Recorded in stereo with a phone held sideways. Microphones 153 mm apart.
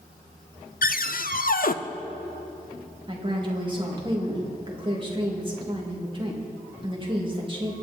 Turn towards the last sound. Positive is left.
turn(degrees=-30)  # may be behind; listen again after turning